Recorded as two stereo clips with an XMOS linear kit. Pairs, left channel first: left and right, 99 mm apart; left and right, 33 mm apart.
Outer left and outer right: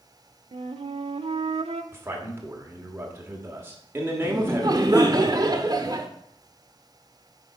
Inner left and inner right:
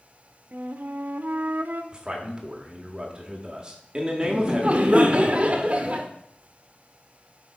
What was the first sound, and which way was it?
A flute, 75° right (ahead or behind).